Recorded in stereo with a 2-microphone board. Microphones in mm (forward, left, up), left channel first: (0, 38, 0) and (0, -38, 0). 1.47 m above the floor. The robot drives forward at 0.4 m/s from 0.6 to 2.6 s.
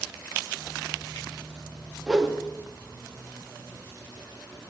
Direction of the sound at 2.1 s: 5° right (ahead or behind).